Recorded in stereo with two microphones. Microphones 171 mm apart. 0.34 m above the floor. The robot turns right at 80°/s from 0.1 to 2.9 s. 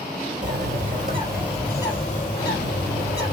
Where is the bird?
90° right, 3 m; by 3.3 s 105° left, 3 m.